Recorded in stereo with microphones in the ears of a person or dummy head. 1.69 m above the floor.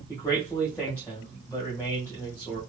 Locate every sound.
0.1 s a man speaking: 15° left (ahead or behind), 1.4 m